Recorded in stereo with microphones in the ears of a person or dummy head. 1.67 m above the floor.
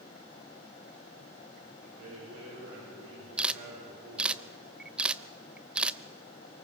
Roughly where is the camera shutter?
Centre.